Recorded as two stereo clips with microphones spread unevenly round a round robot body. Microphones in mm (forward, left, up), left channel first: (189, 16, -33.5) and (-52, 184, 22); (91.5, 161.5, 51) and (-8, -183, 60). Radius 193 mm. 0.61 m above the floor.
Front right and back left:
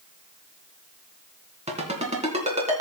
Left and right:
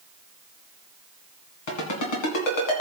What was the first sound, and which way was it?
A ringtone, 75° left.